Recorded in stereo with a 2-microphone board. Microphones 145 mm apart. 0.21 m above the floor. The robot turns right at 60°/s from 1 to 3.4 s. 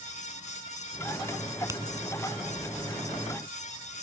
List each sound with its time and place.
1.7 s a finger snap: 20° right (ahead or behind); by 1.8 s 15° right (ahead or behind)